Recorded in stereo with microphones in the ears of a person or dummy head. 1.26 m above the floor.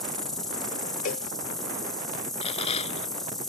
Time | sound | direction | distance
0.0 | an insect | centre (ahead or behind) | ?
1.1 | a cowbell | 45° left (ahead or behind) | ?
2.4 | a rattle | 30° left (ahead or behind) | ?